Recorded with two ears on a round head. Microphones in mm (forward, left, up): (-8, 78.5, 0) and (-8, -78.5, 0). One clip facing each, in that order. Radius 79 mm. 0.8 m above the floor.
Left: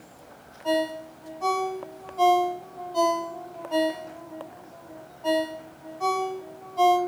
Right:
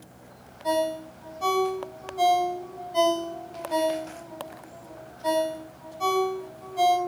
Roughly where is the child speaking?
I don't hear a child speaking.